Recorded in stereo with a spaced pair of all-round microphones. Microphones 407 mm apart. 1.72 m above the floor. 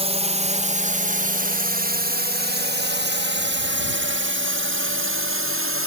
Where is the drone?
15° right (ahead or behind); by 5.9 s 30° right (ahead or behind).